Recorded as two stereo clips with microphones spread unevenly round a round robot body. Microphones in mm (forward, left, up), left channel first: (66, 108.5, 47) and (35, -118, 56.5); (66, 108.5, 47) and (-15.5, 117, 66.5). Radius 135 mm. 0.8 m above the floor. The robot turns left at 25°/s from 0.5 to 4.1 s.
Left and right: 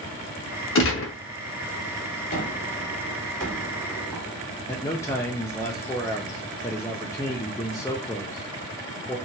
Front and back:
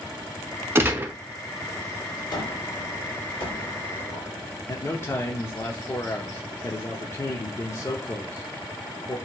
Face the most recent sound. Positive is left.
turn(degrees=10)